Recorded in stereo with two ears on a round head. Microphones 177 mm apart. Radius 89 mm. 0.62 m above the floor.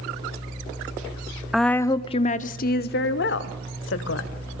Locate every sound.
1.5 s a woman speaking: centre (ahead or behind), 0.7 m; by 4.3 s 70° left (ahead or behind), 2 m